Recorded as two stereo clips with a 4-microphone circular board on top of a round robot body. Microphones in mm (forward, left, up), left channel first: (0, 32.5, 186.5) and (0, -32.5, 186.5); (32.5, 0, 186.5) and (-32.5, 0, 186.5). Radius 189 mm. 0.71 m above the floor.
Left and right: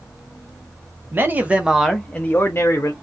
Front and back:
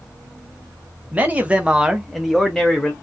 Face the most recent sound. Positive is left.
turn(degrees=75)